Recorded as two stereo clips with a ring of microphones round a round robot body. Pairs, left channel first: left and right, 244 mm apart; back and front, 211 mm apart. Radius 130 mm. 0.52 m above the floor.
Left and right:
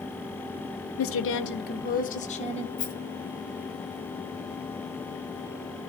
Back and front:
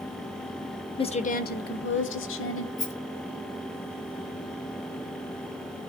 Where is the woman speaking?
115° left, 1.3 m; by 2.7 s 155° left, 2.5 m.